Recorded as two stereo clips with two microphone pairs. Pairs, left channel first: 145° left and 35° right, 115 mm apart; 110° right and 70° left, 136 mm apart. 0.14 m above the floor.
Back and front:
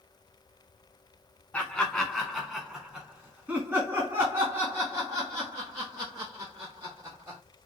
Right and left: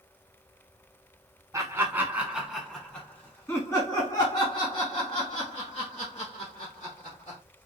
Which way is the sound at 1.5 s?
85° left.